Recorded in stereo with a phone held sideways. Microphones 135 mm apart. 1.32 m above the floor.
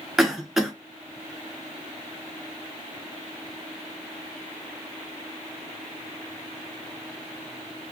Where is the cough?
5° right (ahead or behind), 1.5 m.